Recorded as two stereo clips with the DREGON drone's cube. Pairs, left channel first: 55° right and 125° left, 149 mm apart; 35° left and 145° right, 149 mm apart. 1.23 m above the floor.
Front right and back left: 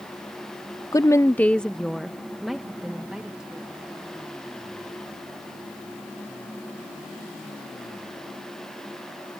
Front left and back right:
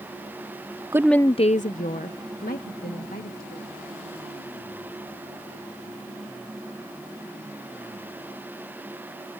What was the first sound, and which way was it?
A woman speaking, 100° right.